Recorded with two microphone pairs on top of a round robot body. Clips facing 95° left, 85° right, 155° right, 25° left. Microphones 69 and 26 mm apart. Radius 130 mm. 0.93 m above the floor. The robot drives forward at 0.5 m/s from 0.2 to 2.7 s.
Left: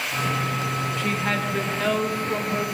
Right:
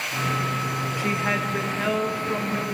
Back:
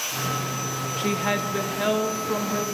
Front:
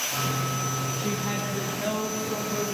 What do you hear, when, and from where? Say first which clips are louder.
1.0 s a woman speaking: right 2 dB, back 5 dB; 160° right, 1.6 m; by 2.6 s 165° right, 2.5 m